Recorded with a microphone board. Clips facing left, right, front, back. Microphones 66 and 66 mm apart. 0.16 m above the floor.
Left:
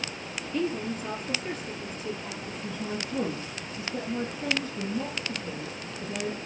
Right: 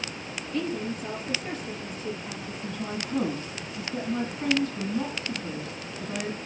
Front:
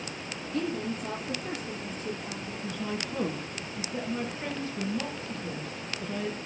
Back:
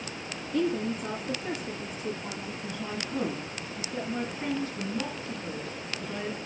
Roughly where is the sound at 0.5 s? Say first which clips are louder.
Left 1 dB, back 4 dB; behind.